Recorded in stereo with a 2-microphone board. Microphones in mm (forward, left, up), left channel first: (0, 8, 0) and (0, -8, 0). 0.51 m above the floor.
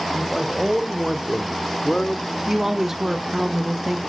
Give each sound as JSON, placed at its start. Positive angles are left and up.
{"t": 0.1, "sound": "a man speaking", "side_deg": -5, "distance_m": 2.0}
{"t": 2.5, "sound": "a woman speaking", "side_deg": -25, "distance_m": 1.2}